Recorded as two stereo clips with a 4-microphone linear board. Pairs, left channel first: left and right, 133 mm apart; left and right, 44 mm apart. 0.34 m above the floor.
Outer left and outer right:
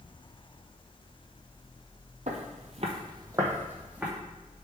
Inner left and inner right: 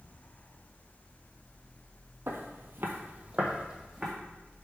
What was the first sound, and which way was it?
Footsteps, 65° right (ahead or behind).